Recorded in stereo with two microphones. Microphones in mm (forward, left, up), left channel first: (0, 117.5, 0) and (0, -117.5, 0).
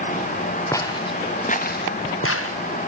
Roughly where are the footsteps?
Centre.